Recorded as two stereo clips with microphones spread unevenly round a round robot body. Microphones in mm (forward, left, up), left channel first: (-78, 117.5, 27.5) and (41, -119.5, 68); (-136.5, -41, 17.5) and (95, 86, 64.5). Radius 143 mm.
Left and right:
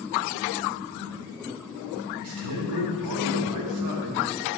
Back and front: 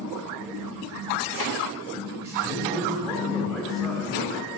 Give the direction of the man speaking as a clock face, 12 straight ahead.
2 o'clock.